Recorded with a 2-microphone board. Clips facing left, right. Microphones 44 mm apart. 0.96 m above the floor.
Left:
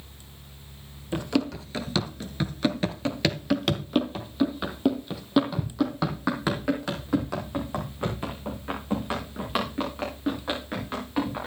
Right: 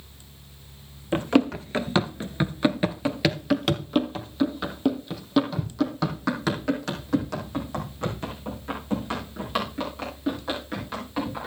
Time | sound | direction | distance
1.1 | running footsteps | 30° right (ahead or behind) | 1.3 m